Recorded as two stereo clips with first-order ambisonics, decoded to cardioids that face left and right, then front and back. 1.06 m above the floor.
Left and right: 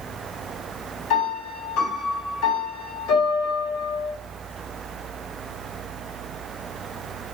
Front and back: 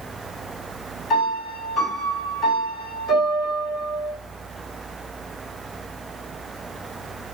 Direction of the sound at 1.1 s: 60° left.